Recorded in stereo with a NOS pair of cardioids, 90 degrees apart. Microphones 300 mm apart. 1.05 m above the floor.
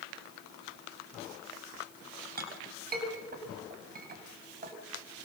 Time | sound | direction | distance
2.4 | a clink | 30° right | 5.5 m